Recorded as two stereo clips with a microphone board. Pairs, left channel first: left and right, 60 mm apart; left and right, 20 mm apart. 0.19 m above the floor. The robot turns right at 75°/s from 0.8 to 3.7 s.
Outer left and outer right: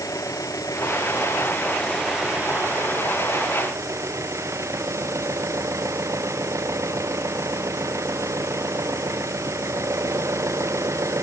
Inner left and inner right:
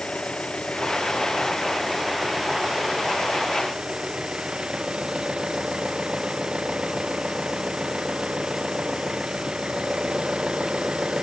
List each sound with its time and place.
0.0 s an engine running: 85° left; by 11.2 s 60° right